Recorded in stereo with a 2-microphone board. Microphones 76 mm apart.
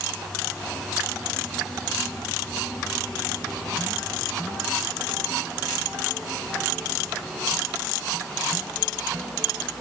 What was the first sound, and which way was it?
Only background noise.